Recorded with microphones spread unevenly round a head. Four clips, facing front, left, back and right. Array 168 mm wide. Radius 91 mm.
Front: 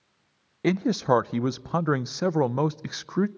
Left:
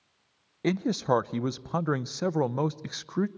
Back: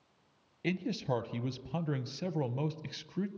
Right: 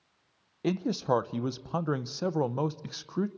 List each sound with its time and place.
0.6 s a man speaking: 10° left, 0.7 m